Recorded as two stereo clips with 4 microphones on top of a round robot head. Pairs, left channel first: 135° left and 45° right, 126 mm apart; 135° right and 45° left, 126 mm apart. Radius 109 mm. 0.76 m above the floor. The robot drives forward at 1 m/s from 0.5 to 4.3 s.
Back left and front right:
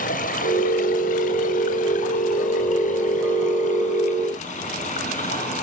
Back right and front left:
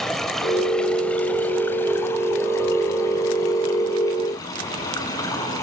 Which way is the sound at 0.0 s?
135° left.